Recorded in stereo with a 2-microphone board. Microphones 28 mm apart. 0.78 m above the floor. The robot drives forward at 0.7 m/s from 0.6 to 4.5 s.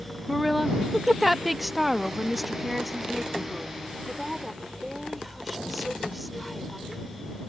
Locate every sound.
0.3 s a woman speaking: 5° right (ahead or behind); by 7.0 s centre (ahead or behind)